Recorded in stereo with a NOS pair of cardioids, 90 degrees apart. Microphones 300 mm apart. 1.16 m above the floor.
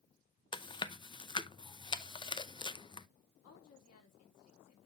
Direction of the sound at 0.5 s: 15° left.